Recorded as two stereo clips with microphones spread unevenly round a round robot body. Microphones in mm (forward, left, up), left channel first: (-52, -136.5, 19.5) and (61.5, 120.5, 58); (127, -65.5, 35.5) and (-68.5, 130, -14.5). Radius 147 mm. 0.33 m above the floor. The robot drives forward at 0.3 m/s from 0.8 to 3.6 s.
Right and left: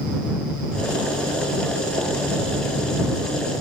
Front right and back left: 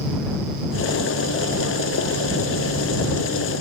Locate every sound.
Only background noise.